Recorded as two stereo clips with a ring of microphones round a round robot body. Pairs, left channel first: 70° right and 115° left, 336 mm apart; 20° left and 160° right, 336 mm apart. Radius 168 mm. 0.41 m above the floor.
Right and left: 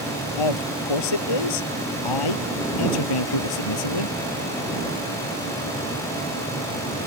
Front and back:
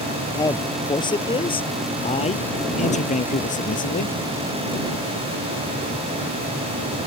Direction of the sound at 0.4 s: 55° right.